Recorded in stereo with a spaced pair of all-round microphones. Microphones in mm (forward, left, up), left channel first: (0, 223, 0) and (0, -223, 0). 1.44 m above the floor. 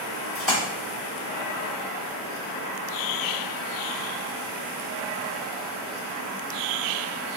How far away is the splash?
About 1.1 m.